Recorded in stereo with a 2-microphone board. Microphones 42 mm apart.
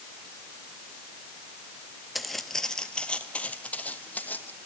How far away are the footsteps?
About 1.6 m.